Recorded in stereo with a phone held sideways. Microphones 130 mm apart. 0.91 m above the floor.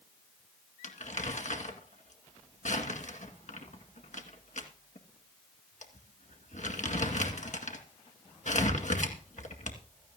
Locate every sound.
0.8 s crumpling: 70° left (ahead or behind), 1.9 m